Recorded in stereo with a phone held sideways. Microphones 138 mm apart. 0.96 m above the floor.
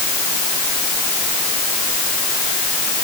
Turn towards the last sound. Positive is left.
No sound to turn to.